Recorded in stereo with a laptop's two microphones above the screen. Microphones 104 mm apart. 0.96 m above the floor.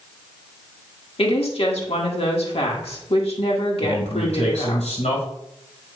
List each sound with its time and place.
1.2 s a woman speaking: 65° left (ahead or behind), 1.5 m
3.8 s a man speaking: 85° left, 4 m